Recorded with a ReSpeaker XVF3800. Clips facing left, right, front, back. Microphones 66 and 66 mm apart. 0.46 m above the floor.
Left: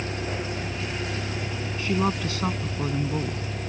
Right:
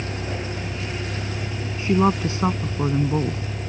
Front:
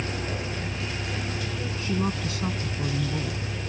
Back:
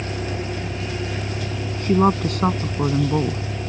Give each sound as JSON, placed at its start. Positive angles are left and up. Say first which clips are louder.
{"t": 0.0, "sound": "a vehicle", "louder": "right 1 dB, back 4 dB", "azimuth_deg": 180}
{"t": 1.8, "sound": "a woman speaking", "louder": "right 6 dB, back 12 dB", "azimuth_deg": -155}